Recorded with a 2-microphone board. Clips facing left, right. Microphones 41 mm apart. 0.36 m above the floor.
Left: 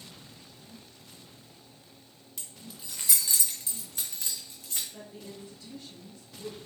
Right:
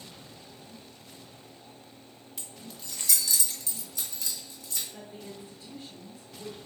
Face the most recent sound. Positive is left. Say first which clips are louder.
# right 1 dB
turn(degrees=-15)  # may be behind; listen again after turning